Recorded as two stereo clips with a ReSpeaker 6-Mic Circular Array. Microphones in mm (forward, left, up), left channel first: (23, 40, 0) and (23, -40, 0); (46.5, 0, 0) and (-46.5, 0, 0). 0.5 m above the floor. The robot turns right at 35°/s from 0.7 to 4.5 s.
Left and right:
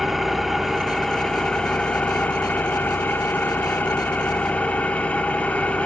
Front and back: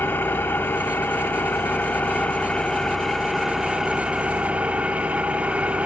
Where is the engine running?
Straight ahead, 0.8 m; by 5.9 s 130° left, 0.8 m.